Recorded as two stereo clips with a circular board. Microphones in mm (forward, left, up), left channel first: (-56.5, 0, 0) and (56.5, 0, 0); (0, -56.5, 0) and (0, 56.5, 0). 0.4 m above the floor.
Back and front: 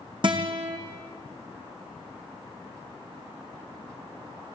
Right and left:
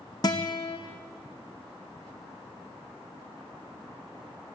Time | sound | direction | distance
0.2 | a guitar | 40° right | 4 m